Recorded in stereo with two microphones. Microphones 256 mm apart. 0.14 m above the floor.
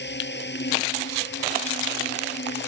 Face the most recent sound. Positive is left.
turn(degrees=45)  # may be behind; listen again after turning